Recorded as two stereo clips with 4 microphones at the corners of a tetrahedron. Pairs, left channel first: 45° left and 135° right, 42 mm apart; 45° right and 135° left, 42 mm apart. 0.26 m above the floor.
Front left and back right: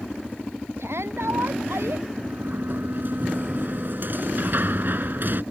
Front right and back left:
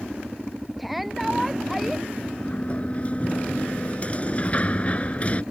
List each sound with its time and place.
0.8 s a shout: 135° right
2.2 s a sliding door: 100° right